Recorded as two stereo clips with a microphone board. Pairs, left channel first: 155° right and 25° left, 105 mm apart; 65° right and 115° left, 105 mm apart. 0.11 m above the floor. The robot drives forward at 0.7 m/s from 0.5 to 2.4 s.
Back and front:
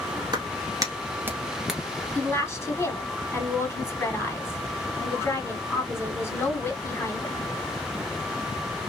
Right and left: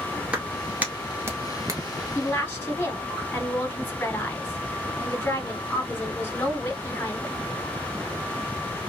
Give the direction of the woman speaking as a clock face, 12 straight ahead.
4 o'clock.